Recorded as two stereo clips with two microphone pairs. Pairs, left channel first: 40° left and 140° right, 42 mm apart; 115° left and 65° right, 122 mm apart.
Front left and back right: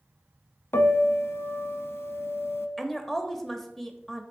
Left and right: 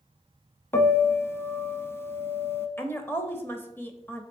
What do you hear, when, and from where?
0.7 s a piano: 45° left, 0.5 m
2.8 s a woman speaking: 100° left, 0.8 m